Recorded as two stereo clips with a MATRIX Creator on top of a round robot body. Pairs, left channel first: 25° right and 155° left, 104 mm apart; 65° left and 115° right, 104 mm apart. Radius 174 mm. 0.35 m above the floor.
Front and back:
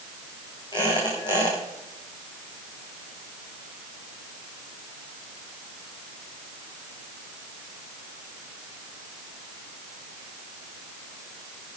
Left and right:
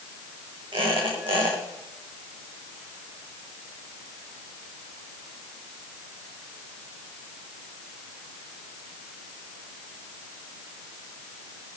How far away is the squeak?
About 6 m.